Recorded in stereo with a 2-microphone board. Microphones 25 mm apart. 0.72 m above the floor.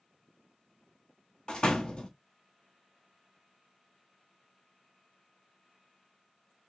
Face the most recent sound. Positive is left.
turn(degrees=35)  # may be behind; listen again after turning